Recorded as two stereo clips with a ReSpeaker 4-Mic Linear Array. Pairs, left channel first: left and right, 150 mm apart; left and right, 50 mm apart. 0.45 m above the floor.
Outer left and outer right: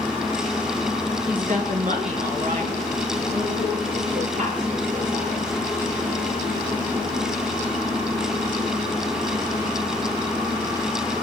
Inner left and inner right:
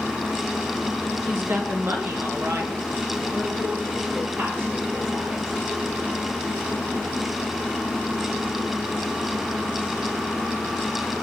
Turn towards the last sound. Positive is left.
turn(degrees=-55)  # may be behind; listen again after turning